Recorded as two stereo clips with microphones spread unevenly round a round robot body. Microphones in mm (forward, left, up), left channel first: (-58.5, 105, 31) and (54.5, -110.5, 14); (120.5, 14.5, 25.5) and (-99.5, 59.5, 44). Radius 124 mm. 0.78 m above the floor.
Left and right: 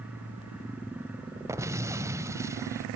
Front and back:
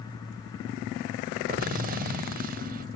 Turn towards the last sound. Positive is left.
turn(degrees=-140)